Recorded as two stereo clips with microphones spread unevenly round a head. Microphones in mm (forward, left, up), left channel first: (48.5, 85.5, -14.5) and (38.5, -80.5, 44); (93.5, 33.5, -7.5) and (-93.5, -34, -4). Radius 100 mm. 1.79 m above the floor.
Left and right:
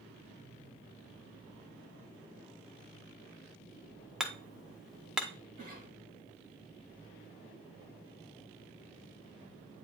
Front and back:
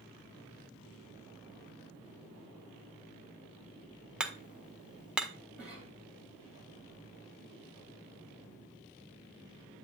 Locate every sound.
4.2 s hammering: 85° right, 0.7 m
5.6 s a cough: 75° right, 4.5 m